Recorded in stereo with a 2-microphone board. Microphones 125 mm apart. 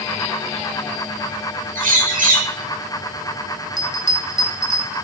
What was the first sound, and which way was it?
A bird, 85° right.